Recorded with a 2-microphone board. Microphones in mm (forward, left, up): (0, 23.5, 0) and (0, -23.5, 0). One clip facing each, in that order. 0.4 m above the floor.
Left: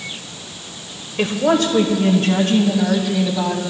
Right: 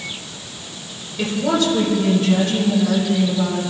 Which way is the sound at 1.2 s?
45° left (ahead or behind).